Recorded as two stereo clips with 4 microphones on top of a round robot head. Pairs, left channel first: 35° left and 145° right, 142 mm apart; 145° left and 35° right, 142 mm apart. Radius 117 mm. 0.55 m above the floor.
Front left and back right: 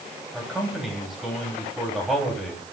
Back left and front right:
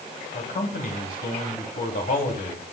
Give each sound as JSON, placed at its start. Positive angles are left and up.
{"t": 0.3, "sound": "a man speaking", "azimuth_deg": 125, "distance_m": 3.5}